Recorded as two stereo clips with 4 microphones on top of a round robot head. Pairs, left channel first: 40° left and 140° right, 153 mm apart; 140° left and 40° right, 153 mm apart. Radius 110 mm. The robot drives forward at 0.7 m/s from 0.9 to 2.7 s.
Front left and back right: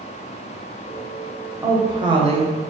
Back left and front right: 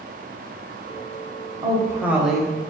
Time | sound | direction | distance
1.6 | a woman speaking | 80° right | 1.0 m